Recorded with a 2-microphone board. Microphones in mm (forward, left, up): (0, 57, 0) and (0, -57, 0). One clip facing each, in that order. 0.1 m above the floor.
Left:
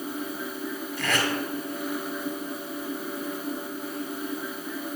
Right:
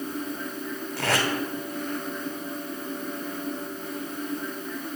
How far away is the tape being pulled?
About 2.5 m.